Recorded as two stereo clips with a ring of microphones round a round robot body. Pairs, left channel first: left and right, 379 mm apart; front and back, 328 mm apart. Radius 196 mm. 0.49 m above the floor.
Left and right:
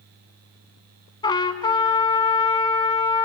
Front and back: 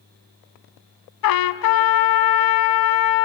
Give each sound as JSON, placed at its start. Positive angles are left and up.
{"t": 1.2, "sound": "a trumpet", "azimuth_deg": 10, "distance_m": 0.6}